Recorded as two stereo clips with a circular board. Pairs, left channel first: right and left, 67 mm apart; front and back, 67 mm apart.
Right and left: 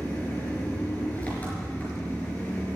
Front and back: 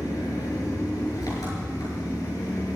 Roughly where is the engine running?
Ahead right.